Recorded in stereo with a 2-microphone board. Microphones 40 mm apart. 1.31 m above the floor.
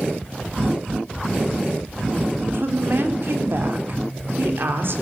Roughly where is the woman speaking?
Right.